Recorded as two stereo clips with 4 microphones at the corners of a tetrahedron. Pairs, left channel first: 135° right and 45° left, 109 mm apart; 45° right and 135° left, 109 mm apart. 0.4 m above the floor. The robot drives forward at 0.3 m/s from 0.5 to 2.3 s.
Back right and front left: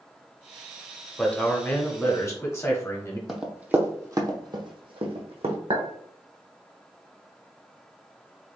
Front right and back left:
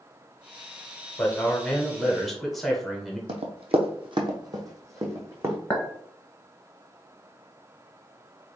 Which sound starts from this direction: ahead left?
A clink, at 5.7 s.